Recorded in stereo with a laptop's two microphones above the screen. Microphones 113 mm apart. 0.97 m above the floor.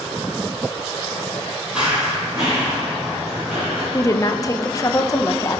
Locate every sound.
1.8 s running footsteps: 5° right (ahead or behind), 1.2 m
3.9 s a woman speaking: 30° left (ahead or behind), 0.5 m